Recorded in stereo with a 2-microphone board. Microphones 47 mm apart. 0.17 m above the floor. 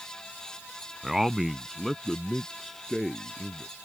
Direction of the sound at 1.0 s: 10° right (ahead or behind).